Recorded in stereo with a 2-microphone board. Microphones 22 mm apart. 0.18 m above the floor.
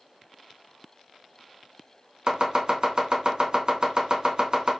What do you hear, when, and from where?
2.3 s chopping: 40° right (ahead or behind), 0.7 m